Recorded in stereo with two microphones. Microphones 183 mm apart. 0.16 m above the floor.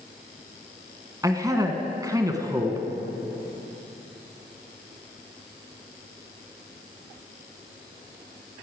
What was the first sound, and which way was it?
A man speaking, 20° right (ahead or behind).